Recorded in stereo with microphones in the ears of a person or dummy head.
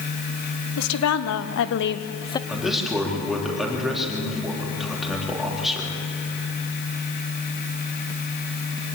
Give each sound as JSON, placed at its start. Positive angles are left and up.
{"t": 0.8, "sound": "a woman speaking", "side_deg": 85, "distance_m": 1.7}
{"t": 2.5, "sound": "a man speaking", "side_deg": 0, "distance_m": 4.0}